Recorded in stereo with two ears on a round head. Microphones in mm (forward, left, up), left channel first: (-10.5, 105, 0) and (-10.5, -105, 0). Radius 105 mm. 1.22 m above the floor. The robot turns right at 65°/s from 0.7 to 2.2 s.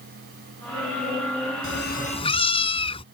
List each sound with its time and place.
1.6 s a cat meowing: 120° left; by 3.0 s 155° left